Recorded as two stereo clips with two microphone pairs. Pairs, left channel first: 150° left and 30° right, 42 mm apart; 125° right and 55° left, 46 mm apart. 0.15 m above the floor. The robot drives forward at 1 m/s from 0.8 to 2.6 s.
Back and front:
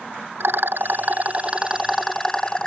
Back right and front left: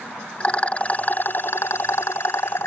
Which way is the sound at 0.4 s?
60° right.